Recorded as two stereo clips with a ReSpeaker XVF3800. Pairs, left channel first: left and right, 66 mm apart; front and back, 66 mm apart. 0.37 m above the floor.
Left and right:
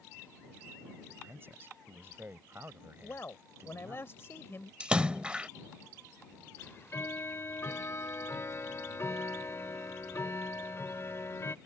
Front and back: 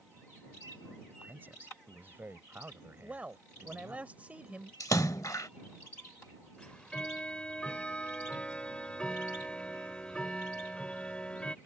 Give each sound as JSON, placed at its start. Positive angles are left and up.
{"t": 1.1, "sound": "a man speaking", "azimuth_deg": -130}
{"t": 3.0, "sound": "a man speaking", "azimuth_deg": 120}
{"t": 4.8, "sound": "a splash", "azimuth_deg": -15}
{"t": 6.6, "sound": "ticking", "azimuth_deg": 65}